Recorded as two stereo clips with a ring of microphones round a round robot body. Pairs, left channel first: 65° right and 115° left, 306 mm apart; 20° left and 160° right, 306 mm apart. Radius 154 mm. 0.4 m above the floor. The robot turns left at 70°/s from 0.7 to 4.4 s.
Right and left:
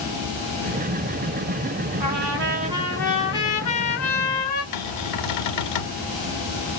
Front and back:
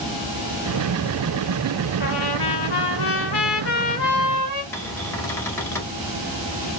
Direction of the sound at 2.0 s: 85° left.